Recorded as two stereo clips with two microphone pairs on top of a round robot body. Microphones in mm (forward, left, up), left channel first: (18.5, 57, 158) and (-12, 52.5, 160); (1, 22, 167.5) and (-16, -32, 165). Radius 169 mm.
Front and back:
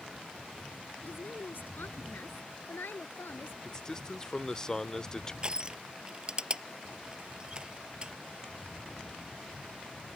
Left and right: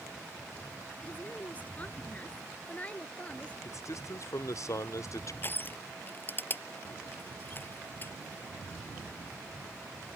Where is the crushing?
130° left.